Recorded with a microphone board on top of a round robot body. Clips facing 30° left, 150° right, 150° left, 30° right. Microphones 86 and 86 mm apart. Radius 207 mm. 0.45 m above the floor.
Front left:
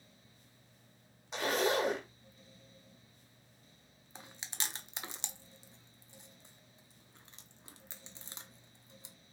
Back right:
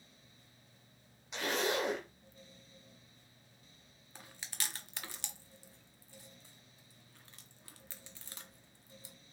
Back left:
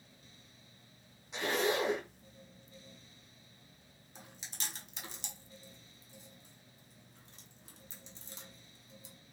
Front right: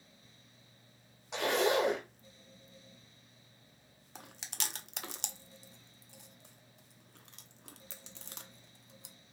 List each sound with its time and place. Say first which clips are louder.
1.3 s a zipper: front left 3 dB, front right 3 dB; 25° right, 1.1 m
4.2 s chewing: front left 1 dB, front right 4 dB; 40° right, 0.6 m